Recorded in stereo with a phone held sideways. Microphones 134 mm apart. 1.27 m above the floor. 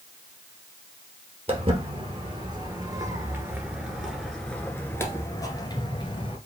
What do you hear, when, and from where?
1.5 s footsteps: 45° right (ahead or behind), 1.9 m; by 6.4 s 40° left (ahead or behind), 1.6 m